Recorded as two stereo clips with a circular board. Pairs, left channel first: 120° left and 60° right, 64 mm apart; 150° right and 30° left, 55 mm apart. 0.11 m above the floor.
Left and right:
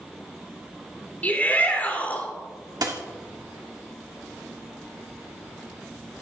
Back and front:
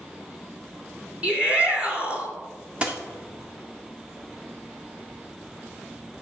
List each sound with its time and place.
1.2 s a shout: 80° left, 2.0 m
2.8 s a dropped coin: 40° right, 1.6 m